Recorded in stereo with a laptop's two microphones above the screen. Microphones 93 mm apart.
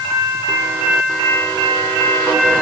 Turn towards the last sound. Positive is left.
No sound to turn to.